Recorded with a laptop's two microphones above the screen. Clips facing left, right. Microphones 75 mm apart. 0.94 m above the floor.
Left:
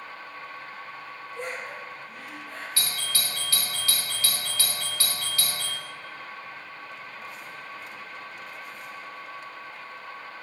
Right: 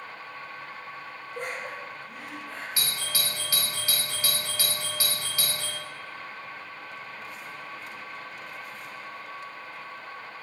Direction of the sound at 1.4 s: 50° right (ahead or behind).